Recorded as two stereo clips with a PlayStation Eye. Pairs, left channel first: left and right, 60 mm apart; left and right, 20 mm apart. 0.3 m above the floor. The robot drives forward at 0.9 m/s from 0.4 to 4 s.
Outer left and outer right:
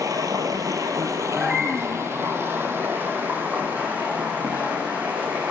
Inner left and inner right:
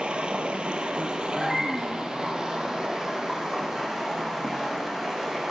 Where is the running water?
85° right, 1.7 m; by 5.5 s 25° right (ahead or behind), 4 m.